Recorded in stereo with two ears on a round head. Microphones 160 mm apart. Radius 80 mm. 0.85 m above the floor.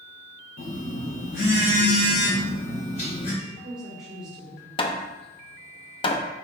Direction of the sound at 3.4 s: 5° right (ahead or behind).